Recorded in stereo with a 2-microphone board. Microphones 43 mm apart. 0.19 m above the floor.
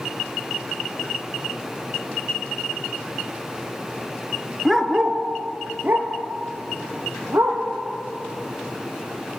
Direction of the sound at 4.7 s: 5° right (ahead or behind).